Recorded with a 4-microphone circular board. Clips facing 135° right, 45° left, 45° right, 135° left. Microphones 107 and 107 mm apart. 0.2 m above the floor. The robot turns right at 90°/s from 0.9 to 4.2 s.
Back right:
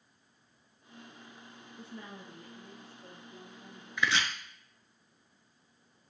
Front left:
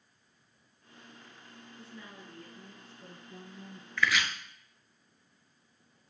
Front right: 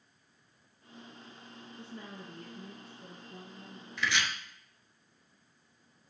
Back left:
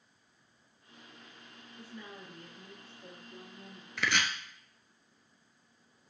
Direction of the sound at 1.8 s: 110° right.